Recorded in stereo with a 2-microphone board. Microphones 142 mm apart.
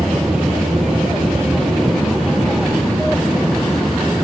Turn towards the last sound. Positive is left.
turn(degrees=0)  # may be behind; listen again after turning